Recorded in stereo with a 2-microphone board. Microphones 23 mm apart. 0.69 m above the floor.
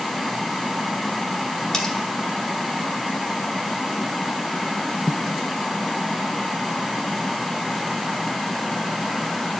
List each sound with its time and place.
1.7 s cutlery clinking: 20° left (ahead or behind), 1.8 m